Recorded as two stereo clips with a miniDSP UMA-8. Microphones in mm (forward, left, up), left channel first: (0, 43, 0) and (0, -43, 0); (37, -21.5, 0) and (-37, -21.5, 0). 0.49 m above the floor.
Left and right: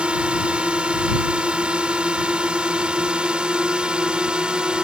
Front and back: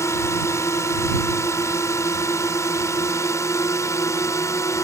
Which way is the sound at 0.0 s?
20° right.